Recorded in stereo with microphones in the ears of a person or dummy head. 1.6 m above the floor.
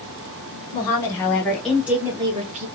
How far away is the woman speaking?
About 1.8 m.